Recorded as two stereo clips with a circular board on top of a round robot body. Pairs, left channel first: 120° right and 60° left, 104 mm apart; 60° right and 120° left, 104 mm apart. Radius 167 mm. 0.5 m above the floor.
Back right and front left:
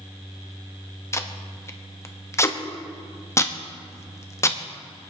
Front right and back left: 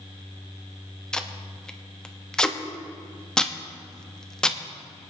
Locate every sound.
1.1 s tape being pulled: 135° right, 1.3 m